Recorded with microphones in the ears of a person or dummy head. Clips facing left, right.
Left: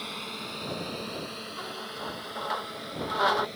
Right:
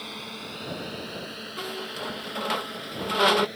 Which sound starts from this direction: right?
A squeak, at 1.6 s.